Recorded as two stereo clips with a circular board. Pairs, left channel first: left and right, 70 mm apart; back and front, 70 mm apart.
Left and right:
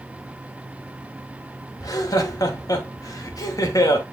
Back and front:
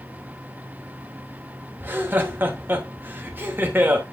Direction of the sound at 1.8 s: 60° left.